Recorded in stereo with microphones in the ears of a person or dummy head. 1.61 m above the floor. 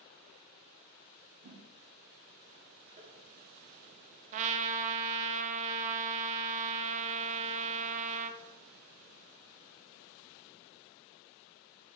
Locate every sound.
1.4 s a whoosh: 65° right (ahead or behind), 1.7 m
3.0 s tapping: 40° right (ahead or behind), 1.6 m
4.3 s a trumpet: 35° right (ahead or behind), 0.5 m